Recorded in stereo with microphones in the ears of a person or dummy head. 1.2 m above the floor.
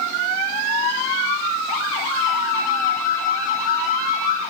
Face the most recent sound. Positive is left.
turn(degrees=-50)  # may be behind; listen again after turning